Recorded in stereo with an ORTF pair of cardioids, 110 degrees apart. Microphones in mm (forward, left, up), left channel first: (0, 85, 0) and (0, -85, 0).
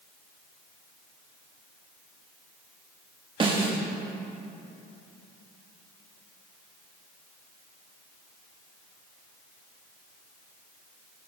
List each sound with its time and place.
3.4 s a snare drum: 30° right, 2 m